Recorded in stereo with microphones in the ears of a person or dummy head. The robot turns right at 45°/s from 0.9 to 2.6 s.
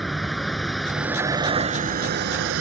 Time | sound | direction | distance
0.0 | a vehicle | straight behind | ?